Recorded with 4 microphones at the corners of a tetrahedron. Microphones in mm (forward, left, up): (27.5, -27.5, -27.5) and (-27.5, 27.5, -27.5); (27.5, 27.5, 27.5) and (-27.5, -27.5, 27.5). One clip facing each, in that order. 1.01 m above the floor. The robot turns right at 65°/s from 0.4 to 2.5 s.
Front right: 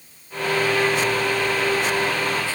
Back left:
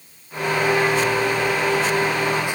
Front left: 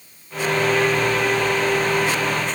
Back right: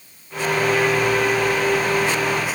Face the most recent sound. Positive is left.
No sound to turn to.